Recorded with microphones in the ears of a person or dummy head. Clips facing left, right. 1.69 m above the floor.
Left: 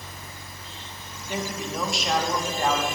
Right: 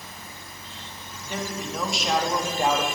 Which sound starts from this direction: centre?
A man speaking, at 1.3 s.